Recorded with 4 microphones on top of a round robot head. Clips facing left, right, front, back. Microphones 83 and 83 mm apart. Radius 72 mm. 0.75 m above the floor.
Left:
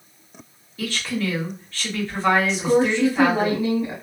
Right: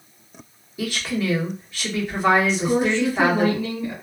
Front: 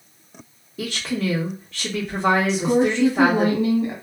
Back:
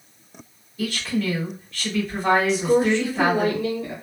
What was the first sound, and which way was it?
A woman speaking, 15° right.